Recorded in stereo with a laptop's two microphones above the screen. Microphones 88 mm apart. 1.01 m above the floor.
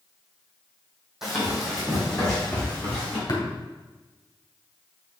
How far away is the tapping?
About 2 m.